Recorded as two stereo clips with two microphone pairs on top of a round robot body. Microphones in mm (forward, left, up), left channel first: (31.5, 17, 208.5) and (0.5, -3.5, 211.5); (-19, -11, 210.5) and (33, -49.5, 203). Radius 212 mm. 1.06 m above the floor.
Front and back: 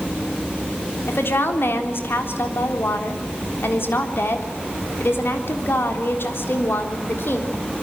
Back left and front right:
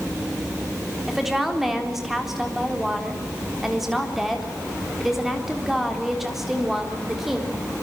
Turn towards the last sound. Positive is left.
turn(degrees=50)